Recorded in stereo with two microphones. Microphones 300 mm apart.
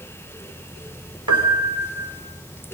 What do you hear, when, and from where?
1.3 s a piano: 75° right (ahead or behind), 3 m